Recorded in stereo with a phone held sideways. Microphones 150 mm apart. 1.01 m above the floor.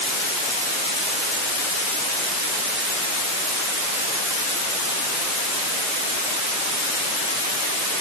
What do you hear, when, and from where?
Only background noise.